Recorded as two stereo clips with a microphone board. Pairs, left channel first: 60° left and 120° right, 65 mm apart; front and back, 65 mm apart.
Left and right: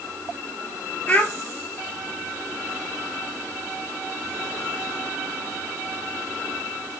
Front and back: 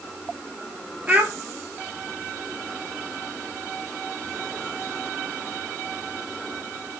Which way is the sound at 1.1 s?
120° left.